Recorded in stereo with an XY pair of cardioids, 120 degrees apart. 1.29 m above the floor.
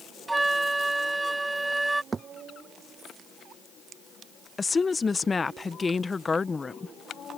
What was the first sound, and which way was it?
A flute, 15° right.